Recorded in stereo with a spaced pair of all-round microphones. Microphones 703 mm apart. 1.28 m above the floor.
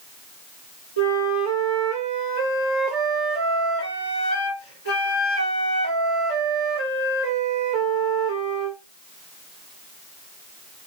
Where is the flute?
40° left (ahead or behind), 1.6 m.